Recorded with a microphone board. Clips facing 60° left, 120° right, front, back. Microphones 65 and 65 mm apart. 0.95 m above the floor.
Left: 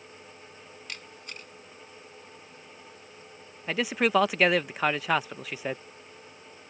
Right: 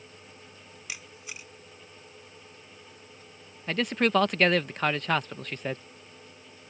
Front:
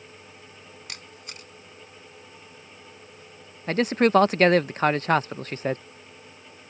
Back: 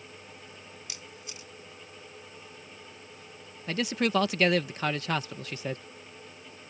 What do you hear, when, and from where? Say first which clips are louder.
0.9 s a camera shutter: right 1 dB, front 3 dB; 35° right
3.7 s a man speaking: even, front 8 dB; 20° right